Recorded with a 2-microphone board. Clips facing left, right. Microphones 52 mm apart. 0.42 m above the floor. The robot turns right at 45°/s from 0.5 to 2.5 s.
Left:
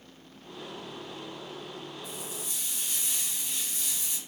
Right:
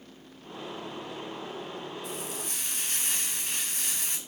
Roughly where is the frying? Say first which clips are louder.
Right 3 dB; right.